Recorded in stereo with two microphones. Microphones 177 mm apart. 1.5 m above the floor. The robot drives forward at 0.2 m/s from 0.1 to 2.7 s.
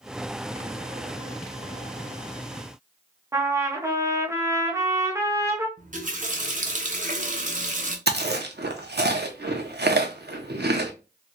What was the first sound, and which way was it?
A trumpet, 15° right (ahead or behind).